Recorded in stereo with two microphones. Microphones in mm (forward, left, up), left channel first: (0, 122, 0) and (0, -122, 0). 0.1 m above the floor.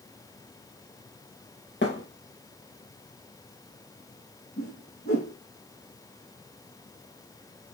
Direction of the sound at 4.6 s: 60° left (ahead or behind).